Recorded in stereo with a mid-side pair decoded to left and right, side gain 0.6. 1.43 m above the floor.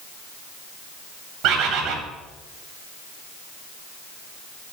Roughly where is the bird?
Ahead right.